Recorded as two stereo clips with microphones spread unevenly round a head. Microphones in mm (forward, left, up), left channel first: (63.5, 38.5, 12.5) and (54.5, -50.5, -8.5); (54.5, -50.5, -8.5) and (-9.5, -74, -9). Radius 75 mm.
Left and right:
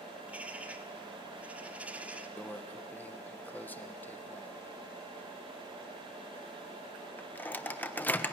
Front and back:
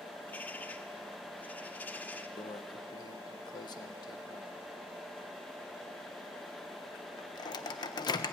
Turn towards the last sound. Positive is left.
turn(degrees=20)